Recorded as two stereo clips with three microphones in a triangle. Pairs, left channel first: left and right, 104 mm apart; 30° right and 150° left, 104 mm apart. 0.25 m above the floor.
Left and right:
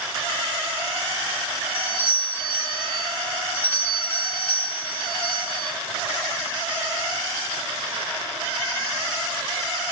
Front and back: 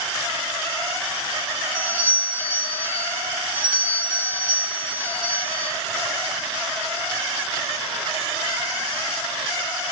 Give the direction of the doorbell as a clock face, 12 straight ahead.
9 o'clock.